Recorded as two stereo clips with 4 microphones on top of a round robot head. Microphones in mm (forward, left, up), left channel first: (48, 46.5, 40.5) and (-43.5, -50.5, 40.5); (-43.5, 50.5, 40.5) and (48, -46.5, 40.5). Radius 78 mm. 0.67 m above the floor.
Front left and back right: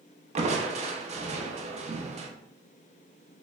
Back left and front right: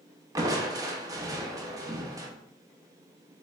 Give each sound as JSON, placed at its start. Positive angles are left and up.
{"t": 0.3, "sound": "crushing", "azimuth_deg": -105, "distance_m": 0.7}